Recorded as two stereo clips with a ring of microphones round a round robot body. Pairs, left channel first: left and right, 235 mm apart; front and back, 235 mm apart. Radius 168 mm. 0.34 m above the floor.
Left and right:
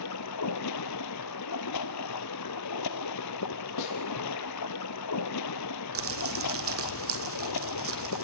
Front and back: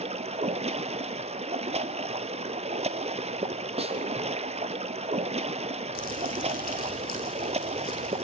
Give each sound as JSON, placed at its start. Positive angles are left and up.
{"t": 0.0, "sound": "running water", "azimuth_deg": 115, "distance_m": 1.2}
{"t": 3.8, "sound": "a snare drum", "azimuth_deg": 115, "distance_m": 4.0}
{"t": 6.0, "sound": "crumpling", "azimuth_deg": -65, "distance_m": 4.0}